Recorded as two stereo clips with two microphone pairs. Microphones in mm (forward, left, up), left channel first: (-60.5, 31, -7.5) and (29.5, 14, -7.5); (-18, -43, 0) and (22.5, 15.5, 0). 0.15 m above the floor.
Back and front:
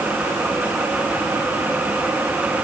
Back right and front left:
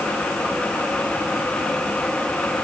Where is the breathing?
I don't hear breathing.